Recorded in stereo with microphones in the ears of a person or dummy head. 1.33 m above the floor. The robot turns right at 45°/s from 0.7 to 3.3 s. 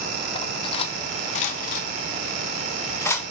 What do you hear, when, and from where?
0.3 s cutlery clinking: 35° left (ahead or behind), 0.6 m; by 3.2 s 10° left (ahead or behind), 0.6 m